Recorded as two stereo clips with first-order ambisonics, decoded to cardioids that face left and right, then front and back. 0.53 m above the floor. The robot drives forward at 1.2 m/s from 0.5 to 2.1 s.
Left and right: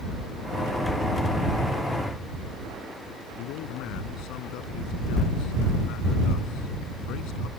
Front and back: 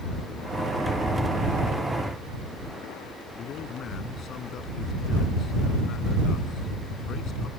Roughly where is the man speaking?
Ahead left.